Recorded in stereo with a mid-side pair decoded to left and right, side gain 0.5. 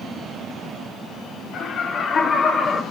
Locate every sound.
1.5 s laughter: 55° left, 2.5 m; by 2.8 s 35° left, 2 m